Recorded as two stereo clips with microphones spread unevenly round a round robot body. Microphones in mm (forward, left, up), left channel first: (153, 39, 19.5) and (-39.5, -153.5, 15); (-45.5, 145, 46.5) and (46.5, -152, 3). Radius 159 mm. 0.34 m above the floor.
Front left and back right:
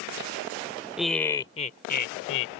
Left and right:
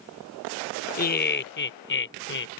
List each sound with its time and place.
1.0 s laughter: 140° left; by 2.6 s 55° left